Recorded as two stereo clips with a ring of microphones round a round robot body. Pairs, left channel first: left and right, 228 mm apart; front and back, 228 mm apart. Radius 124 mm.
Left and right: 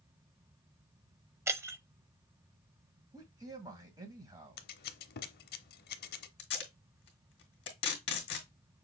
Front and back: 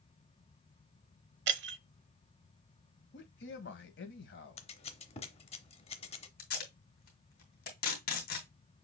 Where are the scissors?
55° left, 0.7 m.